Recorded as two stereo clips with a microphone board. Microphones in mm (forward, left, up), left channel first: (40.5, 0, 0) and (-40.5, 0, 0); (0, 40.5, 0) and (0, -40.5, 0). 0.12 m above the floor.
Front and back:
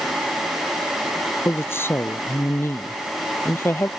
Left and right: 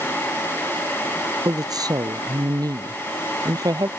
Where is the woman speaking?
60° right.